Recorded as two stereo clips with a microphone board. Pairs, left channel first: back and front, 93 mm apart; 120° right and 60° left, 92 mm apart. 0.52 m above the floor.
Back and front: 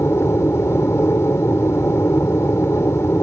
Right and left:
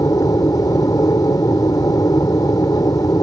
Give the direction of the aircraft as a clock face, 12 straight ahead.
4 o'clock.